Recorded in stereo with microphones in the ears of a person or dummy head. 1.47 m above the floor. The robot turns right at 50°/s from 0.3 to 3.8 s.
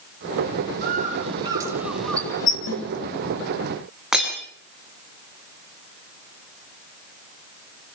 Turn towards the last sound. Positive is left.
turn(degrees=0)  # may be behind; listen again after turning